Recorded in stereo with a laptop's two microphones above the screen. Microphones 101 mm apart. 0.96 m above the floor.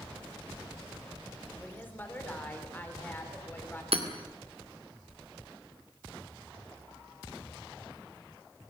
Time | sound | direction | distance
1.6 | a woman speaking | 20° left (ahead or behind) | 3 m
3.9 | hammering | 85° right | 2 m